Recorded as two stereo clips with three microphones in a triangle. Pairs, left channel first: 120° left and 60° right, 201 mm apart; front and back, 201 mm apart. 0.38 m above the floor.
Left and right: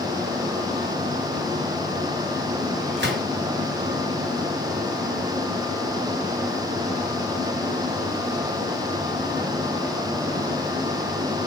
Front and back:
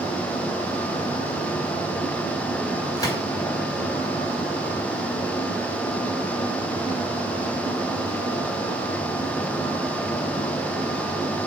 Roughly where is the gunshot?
Right.